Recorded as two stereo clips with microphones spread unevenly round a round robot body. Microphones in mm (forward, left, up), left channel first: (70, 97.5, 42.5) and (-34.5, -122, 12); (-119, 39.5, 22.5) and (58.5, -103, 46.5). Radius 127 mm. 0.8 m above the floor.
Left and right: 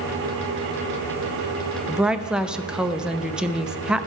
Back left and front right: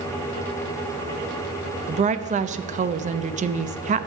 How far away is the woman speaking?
About 0.6 m.